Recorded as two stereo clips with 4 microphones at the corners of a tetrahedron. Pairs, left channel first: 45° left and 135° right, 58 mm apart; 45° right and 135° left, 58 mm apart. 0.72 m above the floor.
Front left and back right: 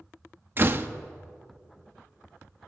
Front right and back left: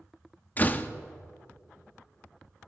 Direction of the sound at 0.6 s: 95° right.